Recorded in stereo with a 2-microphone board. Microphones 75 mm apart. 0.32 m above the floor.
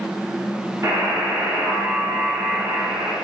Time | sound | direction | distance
0.8 | a buzzer | 45° right (ahead or behind) | 6.5 m